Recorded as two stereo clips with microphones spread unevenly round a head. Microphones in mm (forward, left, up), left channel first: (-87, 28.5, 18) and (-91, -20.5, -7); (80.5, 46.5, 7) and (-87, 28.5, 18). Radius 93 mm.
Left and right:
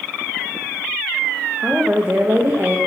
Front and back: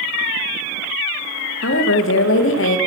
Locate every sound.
1.6 s a woman speaking: 20° right, 0.6 m